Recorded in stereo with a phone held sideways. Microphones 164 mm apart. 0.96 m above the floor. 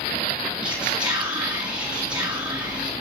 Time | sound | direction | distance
0.6 | whispering | 25° right (ahead or behind) | 1.5 m